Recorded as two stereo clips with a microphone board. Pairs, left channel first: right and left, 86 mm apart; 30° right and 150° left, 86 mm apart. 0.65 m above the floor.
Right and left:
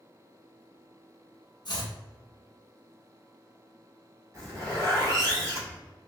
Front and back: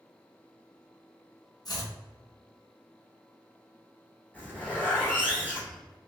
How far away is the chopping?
About 0.8 m.